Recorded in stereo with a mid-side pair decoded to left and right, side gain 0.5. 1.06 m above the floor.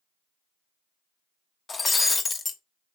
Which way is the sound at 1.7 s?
30° left.